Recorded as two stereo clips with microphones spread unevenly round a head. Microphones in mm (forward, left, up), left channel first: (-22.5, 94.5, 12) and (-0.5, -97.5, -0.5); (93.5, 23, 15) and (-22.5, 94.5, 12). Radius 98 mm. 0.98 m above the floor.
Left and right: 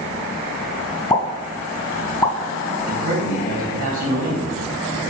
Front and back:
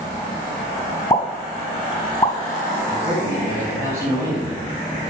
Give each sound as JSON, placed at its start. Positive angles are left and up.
{"t": 1.1, "sound": "a pop", "azimuth_deg": 25, "distance_m": 1.9}
{"t": 2.9, "sound": "a man speaking", "azimuth_deg": -130, "distance_m": 4.5}